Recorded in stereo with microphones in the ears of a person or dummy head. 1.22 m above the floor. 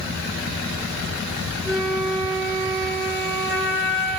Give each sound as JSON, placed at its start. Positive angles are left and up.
{"t": 1.6, "sound": "a flute", "side_deg": 10, "distance_m": 9.5}